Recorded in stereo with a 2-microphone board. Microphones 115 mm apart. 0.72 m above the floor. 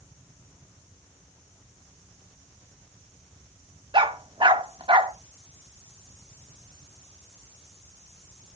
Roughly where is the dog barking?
Right.